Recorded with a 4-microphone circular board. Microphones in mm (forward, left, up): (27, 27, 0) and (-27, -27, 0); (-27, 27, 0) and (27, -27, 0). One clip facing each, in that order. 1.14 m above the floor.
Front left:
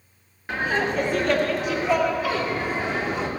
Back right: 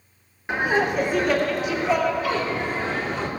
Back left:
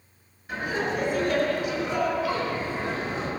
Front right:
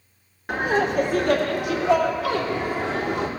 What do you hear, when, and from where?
0.5 s laughter: 60° right, 2.0 m; by 3.3 s 30° right, 3 m